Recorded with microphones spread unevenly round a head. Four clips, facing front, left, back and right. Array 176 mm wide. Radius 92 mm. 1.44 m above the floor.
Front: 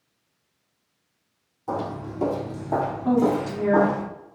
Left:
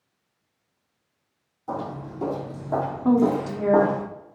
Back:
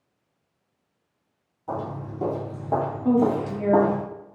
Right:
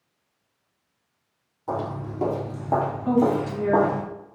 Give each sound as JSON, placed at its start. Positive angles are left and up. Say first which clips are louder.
{"t": 1.7, "sound": "footsteps", "louder": "right 2 dB, front 2 dB", "azimuth_deg": -75, "distance_m": 1.8}
{"t": 3.0, "sound": "a woman speaking", "louder": "left 2 dB, back 1 dB", "azimuth_deg": 115, "distance_m": 1.0}